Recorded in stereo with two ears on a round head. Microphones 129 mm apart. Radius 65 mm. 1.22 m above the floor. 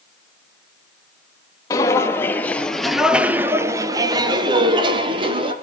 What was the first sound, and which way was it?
Footsteps, 25° left (ahead or behind).